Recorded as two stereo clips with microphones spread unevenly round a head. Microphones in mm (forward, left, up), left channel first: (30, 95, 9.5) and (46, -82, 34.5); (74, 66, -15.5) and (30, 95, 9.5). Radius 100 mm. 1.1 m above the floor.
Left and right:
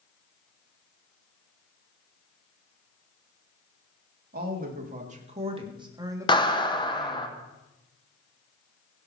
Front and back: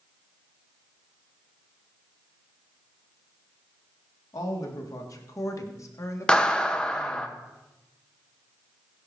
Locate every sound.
4.3 s a woman speaking: 45° right, 2 m; by 7.3 s 10° left, 2 m
6.3 s a clap: 35° left, 1.2 m